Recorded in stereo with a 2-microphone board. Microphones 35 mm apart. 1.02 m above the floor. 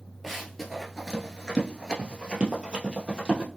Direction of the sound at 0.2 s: Centre (ahead or behind).